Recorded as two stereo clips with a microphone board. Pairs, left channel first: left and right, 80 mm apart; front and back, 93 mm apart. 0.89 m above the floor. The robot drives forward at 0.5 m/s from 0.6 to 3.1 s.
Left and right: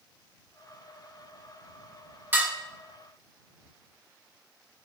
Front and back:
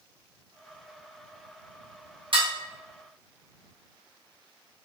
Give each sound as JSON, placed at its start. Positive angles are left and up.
{"t": 2.3, "sound": "dishes clattering", "azimuth_deg": -155, "distance_m": 0.9}